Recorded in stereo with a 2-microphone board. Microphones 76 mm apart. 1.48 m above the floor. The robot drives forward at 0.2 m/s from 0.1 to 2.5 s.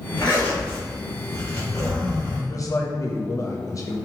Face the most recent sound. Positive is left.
turn(degrees=45)  # may be behind; listen again after turning